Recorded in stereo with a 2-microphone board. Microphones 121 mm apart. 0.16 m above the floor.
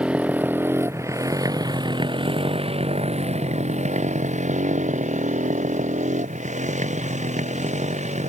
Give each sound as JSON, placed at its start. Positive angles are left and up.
{"t": 0.0, "sound": "a motorcycle", "side_deg": -10}